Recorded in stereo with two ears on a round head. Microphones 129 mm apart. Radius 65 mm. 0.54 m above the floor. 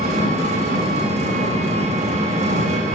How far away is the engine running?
About 0.8 m.